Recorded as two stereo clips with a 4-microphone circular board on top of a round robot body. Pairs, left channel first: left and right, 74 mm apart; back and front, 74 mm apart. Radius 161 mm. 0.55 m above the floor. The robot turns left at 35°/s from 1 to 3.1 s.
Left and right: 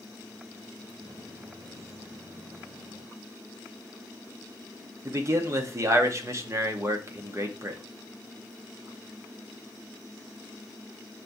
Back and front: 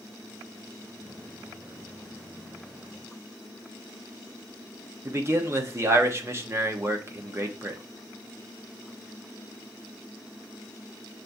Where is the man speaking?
45° right, 0.9 m.